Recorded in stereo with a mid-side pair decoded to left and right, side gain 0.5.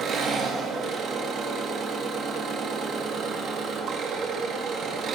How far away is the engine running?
About 1.6 m.